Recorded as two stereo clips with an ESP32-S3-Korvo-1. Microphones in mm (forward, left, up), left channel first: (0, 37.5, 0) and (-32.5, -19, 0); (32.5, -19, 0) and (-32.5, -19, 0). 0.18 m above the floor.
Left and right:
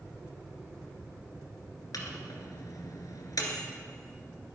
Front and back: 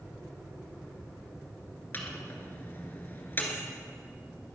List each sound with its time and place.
1.9 s a microwave: 55° left, 2 m